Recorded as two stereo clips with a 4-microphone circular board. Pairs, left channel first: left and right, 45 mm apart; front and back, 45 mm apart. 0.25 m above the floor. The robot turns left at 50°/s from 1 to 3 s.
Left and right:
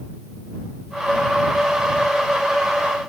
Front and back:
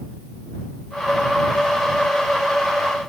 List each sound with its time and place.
Only background noise.